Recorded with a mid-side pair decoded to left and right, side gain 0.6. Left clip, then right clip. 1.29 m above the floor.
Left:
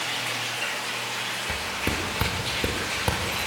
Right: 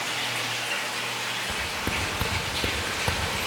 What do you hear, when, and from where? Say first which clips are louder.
1.5 s footsteps: even; 15° left, 6.5 m; by 3.5 s 20° left, 5 m